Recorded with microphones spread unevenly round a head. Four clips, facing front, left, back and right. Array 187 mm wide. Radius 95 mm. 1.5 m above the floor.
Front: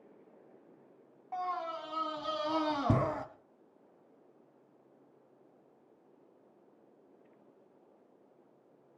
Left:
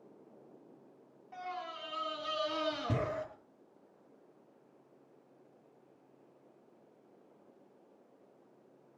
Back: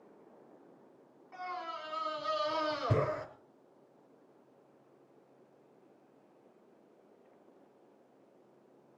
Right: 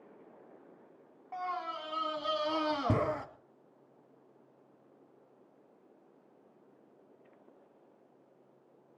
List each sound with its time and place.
1.3 s a scream: 20° right, 2.5 m